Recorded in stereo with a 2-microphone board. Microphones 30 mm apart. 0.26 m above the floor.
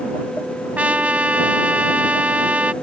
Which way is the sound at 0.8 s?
50° right (ahead or behind).